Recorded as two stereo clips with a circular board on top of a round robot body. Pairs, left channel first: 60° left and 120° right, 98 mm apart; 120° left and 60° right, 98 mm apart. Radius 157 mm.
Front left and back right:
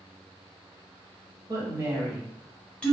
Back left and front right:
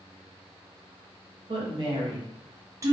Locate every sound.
1.5 s a woman speaking: 70° right, 1.2 m; by 2.9 s 10° right, 0.9 m